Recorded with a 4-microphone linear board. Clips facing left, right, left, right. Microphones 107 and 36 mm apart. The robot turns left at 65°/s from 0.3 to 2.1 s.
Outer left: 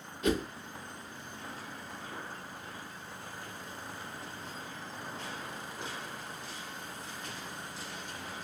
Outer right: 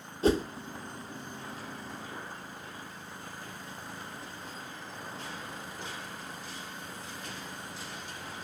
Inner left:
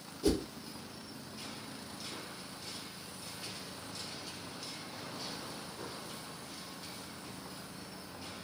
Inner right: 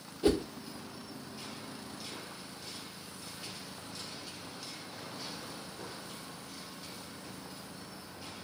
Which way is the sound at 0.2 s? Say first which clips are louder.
Outer right 4 dB, inner right 3 dB; 35° right (ahead or behind).